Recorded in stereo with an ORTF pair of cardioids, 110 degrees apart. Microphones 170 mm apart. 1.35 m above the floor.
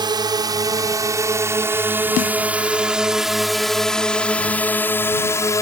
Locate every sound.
0.0 s a drone: 25° right; by 5.6 s 20° left
2.2 s a snare drum: 55° left